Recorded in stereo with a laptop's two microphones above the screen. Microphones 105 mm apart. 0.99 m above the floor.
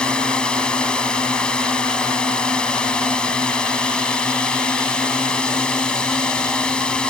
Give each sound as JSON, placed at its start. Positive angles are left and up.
{"t": 0.0, "sound": "a drone", "side_deg": 10}